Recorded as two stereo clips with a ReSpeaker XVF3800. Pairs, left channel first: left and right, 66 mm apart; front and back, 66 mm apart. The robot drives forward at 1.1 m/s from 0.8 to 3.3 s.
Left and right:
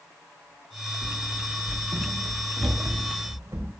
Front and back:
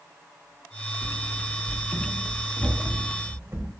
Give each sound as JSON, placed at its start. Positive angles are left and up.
{"t": 1.0, "sound": "running footsteps", "azimuth_deg": -80, "distance_m": 3.0}